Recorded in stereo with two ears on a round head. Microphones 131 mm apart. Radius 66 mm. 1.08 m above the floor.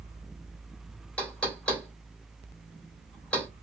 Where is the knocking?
10° left (ahead or behind), 3 m.